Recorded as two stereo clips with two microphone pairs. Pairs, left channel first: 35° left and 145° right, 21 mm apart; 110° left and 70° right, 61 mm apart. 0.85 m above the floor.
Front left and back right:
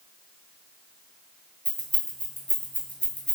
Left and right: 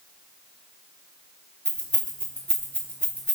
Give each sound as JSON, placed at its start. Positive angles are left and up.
{"t": 1.6, "sound": "keys jangling", "azimuth_deg": 45, "distance_m": 0.9}